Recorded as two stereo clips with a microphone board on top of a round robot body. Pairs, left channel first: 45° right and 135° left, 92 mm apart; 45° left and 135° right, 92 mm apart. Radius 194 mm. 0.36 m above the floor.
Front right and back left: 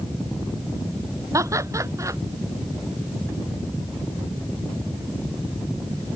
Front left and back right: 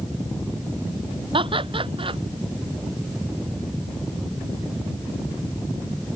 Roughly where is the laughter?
Behind.